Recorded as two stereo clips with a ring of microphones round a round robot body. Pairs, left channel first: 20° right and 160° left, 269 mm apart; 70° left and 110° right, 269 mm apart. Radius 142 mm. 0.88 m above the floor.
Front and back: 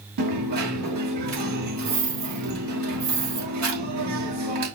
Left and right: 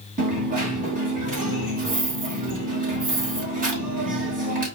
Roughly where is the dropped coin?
Behind.